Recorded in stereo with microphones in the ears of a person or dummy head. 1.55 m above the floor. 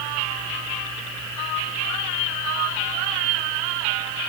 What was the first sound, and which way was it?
Only background noise.